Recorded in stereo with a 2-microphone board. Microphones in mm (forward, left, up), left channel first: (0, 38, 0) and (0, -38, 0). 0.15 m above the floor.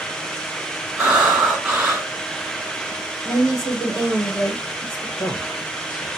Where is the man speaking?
55° left (ahead or behind), 2.5 m.